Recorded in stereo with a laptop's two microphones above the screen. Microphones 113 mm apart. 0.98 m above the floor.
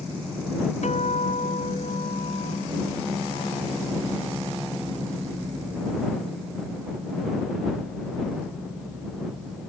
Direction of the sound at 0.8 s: 85° left.